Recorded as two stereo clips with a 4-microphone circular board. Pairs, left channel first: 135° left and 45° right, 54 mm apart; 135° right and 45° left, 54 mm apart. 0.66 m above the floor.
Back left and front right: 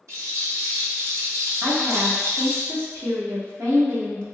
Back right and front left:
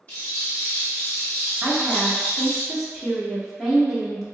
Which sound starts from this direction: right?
A rattle, at 0.1 s.